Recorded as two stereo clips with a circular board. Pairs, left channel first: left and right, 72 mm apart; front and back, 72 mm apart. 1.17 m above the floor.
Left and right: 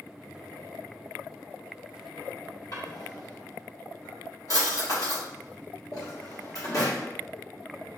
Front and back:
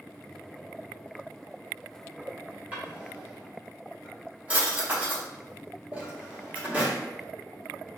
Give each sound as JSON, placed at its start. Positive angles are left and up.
{"t": 2.7, "sound": "a drawer", "azimuth_deg": 115, "distance_m": 1.0}